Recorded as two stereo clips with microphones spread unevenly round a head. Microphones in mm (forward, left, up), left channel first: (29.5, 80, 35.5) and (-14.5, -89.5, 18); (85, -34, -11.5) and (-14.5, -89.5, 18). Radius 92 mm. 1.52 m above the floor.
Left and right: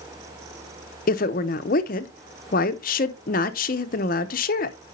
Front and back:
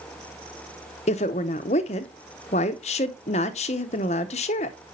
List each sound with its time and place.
1.1 s a woman speaking: 70° left, 0.6 m